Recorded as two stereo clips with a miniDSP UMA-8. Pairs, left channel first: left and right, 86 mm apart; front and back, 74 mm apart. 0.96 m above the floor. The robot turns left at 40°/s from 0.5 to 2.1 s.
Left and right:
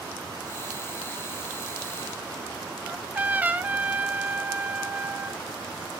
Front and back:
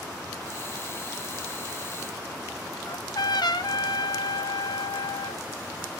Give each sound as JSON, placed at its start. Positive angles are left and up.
{"t": 2.9, "sound": "a trumpet", "azimuth_deg": -20, "distance_m": 0.6}